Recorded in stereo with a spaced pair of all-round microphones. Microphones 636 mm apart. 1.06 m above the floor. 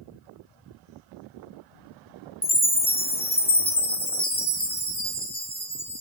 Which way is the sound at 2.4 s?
10° left (ahead or behind).